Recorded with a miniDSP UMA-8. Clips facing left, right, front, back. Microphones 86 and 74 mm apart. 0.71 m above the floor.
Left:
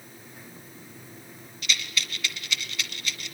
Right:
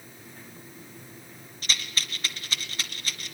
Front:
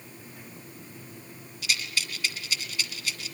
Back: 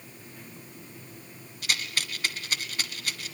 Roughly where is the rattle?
Behind right.